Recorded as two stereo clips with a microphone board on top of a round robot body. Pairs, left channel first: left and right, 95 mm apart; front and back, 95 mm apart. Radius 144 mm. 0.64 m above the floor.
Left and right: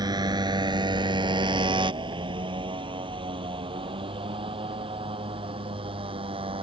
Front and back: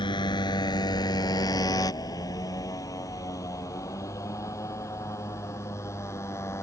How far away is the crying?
I don't hear crying.